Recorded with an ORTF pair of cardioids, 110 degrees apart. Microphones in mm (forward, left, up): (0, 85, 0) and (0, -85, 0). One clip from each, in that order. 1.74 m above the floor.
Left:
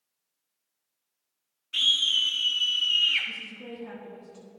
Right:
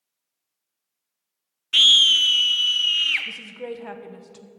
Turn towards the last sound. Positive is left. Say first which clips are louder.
# right 4 dB
turn(degrees=-65)